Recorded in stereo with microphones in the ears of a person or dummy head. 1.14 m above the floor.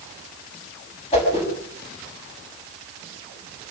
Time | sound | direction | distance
1.1 | a whoosh | 35° left (ahead or behind) | 6.5 m